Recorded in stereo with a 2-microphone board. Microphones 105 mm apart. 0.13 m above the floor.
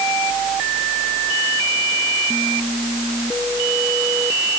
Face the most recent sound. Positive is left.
No sound to turn to.